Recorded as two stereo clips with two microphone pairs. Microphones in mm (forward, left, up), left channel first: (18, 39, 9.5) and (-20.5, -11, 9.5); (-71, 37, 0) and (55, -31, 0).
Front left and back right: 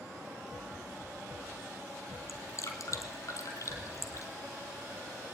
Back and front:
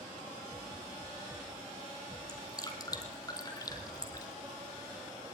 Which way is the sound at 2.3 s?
90° left.